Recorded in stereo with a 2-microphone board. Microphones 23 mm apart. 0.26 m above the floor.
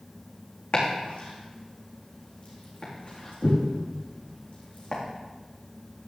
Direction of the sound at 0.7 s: 75° left (ahead or behind).